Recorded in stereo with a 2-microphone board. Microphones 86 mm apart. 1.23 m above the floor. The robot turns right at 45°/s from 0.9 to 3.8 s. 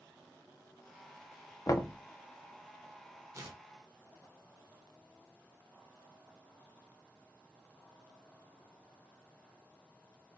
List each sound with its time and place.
1.7 s knocking: 45° left (ahead or behind), 0.5 m; by 2.0 s 30° left (ahead or behind), 0.5 m
3.3 s tearing paper: 35° right (ahead or behind), 1.1 m; by 3.6 s 40° right (ahead or behind), 1.1 m